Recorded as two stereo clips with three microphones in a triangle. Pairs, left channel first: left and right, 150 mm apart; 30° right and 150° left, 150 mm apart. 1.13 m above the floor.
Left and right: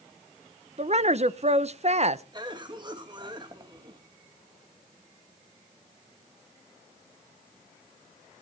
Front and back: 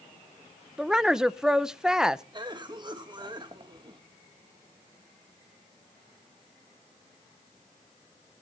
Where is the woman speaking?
125° right, 0.6 m.